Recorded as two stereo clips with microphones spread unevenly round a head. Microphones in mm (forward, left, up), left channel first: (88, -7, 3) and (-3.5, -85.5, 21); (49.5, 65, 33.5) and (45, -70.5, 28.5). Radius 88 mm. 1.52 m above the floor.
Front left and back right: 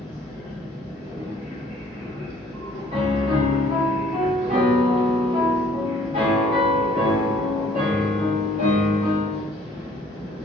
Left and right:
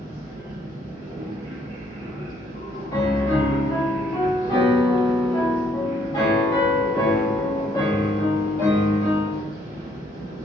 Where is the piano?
160° left, 0.6 m.